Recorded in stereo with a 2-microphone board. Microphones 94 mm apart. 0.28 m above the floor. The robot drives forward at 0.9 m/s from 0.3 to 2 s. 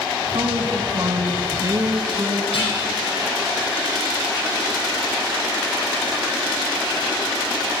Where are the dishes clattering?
70° left (ahead or behind), 6.5 m.